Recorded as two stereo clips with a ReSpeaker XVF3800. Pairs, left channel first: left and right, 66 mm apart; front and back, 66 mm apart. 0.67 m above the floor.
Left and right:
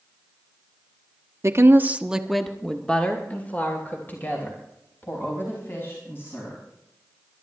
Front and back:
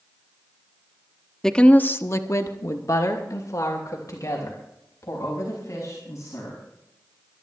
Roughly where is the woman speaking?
Right.